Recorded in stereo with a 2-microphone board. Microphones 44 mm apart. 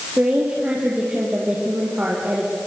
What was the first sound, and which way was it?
A woman speaking, 35° right (ahead or behind).